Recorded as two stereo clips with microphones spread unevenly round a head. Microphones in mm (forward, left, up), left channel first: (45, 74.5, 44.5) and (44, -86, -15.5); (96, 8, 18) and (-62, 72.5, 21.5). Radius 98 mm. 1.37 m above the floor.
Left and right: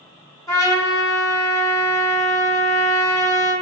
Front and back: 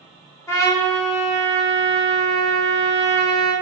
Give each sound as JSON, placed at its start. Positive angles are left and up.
{"t": 0.5, "sound": "a trumpet", "azimuth_deg": 45, "distance_m": 1.2}